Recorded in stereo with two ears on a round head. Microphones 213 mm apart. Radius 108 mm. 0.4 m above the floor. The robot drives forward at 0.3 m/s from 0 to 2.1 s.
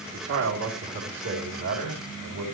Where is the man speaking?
65° right (ahead or behind), 3.5 m; by 2.5 s 70° right (ahead or behind), 3.5 m.